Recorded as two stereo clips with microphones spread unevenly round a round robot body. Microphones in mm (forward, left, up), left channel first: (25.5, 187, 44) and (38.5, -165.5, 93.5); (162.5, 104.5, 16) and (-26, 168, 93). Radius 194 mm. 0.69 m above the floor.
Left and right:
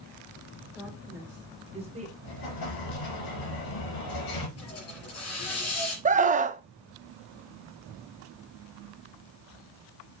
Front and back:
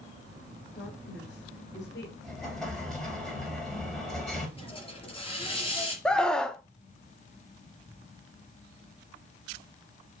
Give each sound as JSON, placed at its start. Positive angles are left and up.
{"t": 0.8, "sound": "a woman speaking", "azimuth_deg": 0, "distance_m": 5.0}
{"t": 2.2, "sound": "an explosion", "azimuth_deg": 70, "distance_m": 5.0}
{"t": 4.6, "sound": "a hiss", "azimuth_deg": 45, "distance_m": 4.5}
{"t": 6.0, "sound": "a scream", "azimuth_deg": -30, "distance_m": 0.8}